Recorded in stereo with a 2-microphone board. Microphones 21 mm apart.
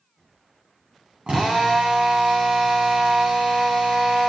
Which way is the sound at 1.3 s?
70° right (ahead or behind).